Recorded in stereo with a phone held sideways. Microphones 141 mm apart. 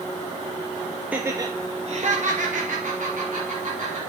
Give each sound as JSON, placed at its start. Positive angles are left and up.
{"t": 1.1, "sound": "laughter", "side_deg": -10, "distance_m": 0.6}